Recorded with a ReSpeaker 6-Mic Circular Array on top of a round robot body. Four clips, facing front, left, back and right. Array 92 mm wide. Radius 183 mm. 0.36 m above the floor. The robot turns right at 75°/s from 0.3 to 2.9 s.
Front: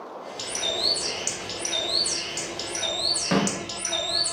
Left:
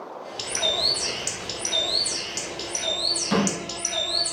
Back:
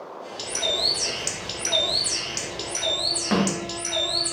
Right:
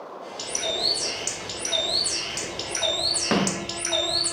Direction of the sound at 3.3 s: 95° right.